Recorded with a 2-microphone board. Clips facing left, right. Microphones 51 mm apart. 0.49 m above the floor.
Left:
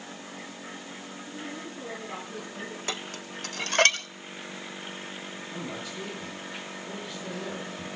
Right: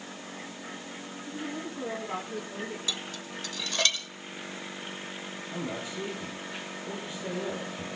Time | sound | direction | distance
1.3 | a woman speaking | 30° right (ahead or behind) | 8 m
2.9 | dishes clattering | 50° left (ahead or behind) | 1.1 m
5.5 | a man speaking | 20° right (ahead or behind) | 10 m